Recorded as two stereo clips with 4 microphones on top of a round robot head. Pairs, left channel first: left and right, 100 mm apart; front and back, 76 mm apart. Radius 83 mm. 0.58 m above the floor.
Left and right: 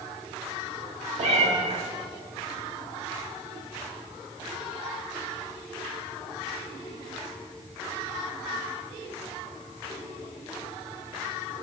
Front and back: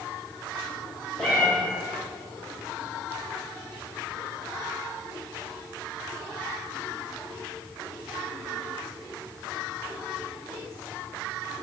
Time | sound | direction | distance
1.2 | a cat meowing | 85° right | 1.4 m